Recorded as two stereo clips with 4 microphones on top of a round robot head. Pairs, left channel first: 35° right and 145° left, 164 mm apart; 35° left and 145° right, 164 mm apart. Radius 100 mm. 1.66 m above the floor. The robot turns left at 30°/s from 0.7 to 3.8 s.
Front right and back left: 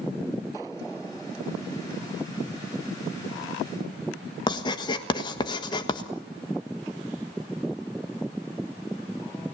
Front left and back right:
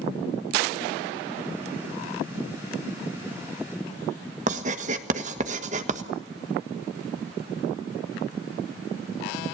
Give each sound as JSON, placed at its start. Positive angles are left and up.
{"t": 4.5, "sound": "writing", "azimuth_deg": -100, "distance_m": 1.4}